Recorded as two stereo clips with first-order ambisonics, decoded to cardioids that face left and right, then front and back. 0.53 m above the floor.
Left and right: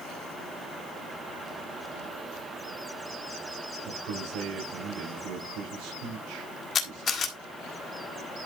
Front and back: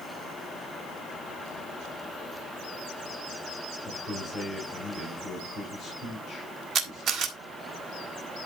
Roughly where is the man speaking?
Right.